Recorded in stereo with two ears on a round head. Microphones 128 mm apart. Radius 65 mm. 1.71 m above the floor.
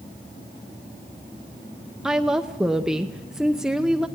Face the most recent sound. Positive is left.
turn(degrees=-5)  # may be behind; listen again after turning